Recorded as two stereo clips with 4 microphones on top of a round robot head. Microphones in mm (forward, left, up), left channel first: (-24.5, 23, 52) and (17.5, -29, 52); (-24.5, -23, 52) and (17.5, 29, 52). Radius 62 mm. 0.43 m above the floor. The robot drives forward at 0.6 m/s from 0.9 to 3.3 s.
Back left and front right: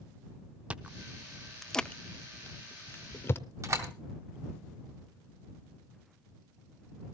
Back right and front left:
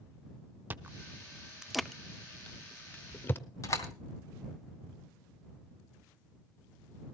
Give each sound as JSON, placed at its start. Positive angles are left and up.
{"t": 0.7, "sound": "chewing", "azimuth_deg": 10, "distance_m": 0.7}
{"t": 3.6, "sound": "a door slam", "azimuth_deg": -90, "distance_m": 2.5}